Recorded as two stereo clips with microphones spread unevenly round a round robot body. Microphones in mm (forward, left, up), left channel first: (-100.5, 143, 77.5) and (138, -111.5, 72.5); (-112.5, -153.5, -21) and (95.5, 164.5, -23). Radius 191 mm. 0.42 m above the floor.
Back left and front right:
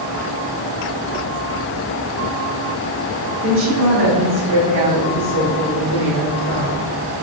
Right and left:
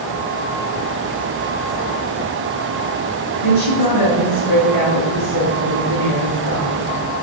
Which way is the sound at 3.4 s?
100° right.